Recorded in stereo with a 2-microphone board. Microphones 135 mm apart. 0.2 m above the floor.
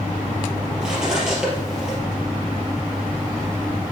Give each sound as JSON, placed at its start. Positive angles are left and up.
{"t": 0.8, "sound": "cutlery clinking", "side_deg": -5, "distance_m": 3.0}